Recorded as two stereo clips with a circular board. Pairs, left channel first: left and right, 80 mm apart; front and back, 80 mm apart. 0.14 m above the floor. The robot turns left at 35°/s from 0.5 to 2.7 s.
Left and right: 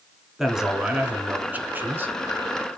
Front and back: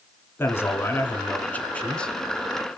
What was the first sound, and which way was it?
A man speaking, 10° right.